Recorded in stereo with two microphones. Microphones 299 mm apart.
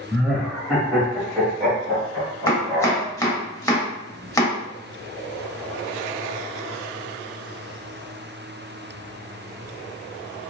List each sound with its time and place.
0.1 s laughter: centre (ahead or behind), 1.4 m; by 3.1 s 15° left (ahead or behind), 1.6 m
2.5 s chopping: 10° left (ahead or behind), 0.6 m